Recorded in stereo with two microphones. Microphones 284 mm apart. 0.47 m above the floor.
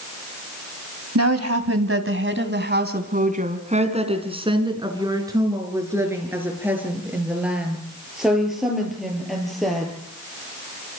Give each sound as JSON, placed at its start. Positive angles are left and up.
{"t": 1.1, "sound": "a woman speaking", "side_deg": -65, "distance_m": 2.5}